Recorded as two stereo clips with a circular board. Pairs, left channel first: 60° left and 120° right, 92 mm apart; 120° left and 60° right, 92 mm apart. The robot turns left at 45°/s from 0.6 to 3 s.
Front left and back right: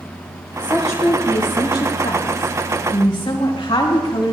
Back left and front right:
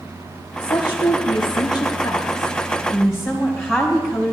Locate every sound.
0.6 s a woman speaking: 135° left, 3.5 m; by 4.3 s 25° left, 3.5 m